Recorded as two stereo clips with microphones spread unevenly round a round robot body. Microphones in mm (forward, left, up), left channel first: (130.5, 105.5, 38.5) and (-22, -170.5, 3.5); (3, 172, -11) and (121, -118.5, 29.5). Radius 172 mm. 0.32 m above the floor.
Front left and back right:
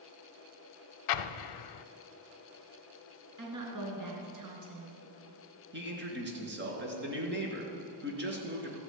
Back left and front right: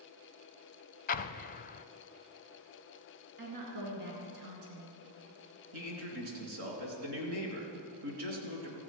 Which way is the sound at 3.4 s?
95° right.